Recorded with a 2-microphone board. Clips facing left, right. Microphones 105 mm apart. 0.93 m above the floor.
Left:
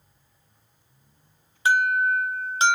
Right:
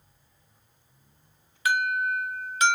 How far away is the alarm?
About 0.7 m.